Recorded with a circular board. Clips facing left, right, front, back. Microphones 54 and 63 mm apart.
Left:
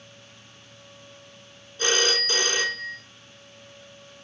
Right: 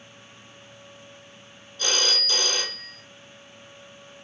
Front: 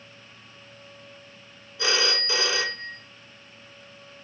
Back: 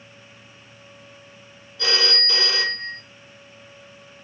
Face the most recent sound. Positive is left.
turn(degrees=55)